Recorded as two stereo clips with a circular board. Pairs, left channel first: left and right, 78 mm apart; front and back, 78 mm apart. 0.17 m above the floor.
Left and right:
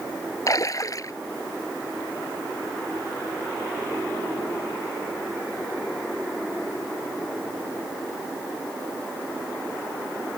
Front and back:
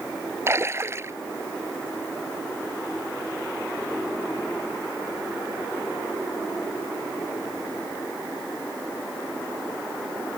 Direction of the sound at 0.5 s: 125° left.